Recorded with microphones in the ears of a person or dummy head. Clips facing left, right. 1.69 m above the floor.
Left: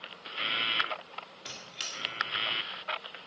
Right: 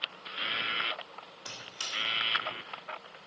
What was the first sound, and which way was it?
A squeak, 30° left (ahead or behind).